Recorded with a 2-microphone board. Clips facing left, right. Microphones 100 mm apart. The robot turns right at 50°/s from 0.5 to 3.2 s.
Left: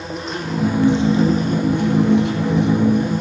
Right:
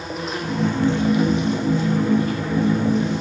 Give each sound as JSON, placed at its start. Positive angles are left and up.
{"t": 0.0, "sound": "an insect", "azimuth_deg": 0, "distance_m": 8.5}